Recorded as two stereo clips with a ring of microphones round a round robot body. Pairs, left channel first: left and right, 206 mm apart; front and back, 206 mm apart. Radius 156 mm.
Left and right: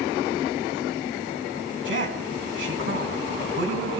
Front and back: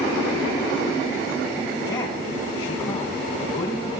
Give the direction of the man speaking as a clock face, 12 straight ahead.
2 o'clock.